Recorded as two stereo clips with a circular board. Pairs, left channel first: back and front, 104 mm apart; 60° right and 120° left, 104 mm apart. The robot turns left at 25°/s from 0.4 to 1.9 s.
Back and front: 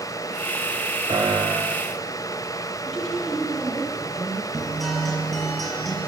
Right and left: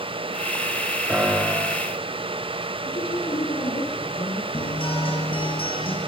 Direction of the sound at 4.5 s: 90° right.